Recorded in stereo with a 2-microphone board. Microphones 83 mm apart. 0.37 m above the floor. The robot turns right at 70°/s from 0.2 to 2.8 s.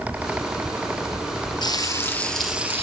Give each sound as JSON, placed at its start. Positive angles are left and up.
{"t": 1.6, "sound": "frying", "azimuth_deg": 125, "distance_m": 4.0}